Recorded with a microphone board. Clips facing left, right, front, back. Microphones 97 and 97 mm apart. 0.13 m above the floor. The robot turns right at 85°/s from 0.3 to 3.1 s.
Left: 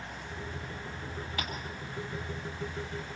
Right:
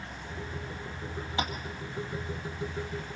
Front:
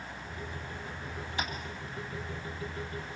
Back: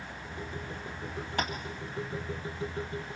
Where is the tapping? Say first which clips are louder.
Right 7 dB, back 4 dB; 155° right, 2.0 m; by 1.5 s 140° right, 2.0 m.